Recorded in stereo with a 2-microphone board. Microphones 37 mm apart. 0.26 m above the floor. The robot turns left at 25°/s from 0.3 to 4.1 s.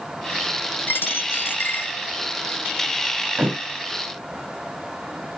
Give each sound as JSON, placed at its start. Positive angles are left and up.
{"t": 0.9, "sound": "a dropped coin", "side_deg": 70, "distance_m": 0.6}
{"t": 3.4, "sound": "a thud", "side_deg": -50, "distance_m": 6.5}